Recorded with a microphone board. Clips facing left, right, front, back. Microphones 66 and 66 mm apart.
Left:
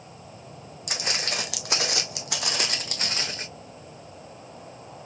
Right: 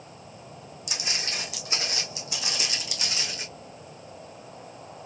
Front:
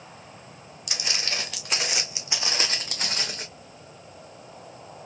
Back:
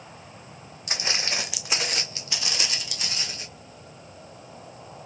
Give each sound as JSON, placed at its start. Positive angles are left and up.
{"t": 0.9, "sound": "footsteps", "azimuth_deg": 125, "distance_m": 1.1}